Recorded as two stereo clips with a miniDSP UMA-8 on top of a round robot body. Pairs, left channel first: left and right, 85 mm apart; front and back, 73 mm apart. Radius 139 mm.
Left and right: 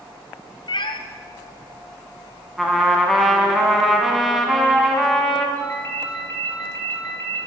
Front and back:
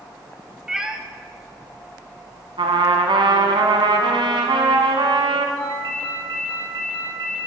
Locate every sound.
0.7 s a cat meowing: 100° left, 0.8 m
2.6 s a trumpet: straight behind, 0.9 m
5.6 s a ringtone: 150° left, 4 m